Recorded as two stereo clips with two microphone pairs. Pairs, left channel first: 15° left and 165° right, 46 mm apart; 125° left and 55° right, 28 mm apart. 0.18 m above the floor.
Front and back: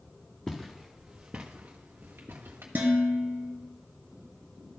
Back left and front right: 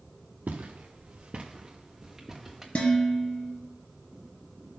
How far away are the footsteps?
About 1.3 m.